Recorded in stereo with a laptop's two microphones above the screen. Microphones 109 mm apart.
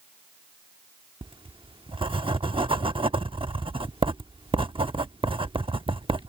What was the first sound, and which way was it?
Writing, 55° right (ahead or behind).